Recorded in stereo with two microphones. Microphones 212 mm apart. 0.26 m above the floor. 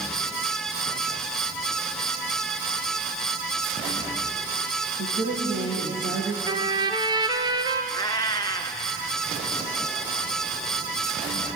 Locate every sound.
5.0 s a woman speaking: 60° right (ahead or behind), 6.5 m
6.5 s a trumpet: 20° right (ahead or behind), 1.5 m
7.9 s a cat meowing: 15° left (ahead or behind), 1.2 m